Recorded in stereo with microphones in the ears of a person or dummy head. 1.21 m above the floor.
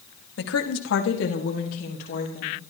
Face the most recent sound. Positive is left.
turn(degrees=40)  # may be behind; listen again after turning